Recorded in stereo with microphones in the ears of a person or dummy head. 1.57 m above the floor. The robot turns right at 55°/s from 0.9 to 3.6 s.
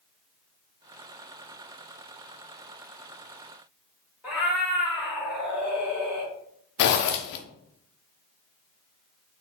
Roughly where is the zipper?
Left.